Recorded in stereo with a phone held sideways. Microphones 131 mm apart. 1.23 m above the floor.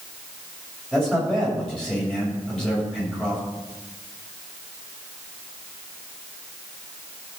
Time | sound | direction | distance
0.9 | a man speaking | 5° left (ahead or behind) | 7.5 m